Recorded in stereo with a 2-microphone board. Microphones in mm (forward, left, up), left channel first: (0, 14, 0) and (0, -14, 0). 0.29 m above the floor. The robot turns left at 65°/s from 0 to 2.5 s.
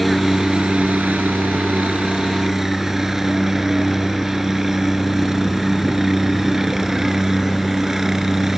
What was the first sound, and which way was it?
A helicopter, straight ahead.